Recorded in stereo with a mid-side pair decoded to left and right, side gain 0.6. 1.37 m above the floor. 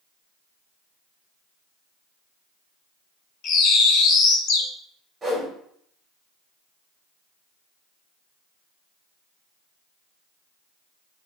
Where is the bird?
55° left, 1.2 m.